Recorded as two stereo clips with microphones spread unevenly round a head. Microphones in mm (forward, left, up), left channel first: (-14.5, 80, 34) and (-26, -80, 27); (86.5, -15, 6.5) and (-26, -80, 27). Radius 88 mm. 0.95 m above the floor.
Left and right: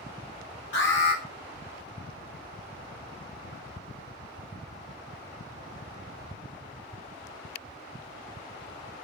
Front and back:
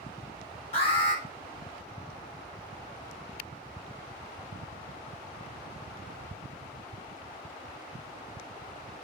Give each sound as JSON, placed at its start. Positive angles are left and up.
{"t": 0.7, "sound": "an alarm", "azimuth_deg": 80, "distance_m": 7.0}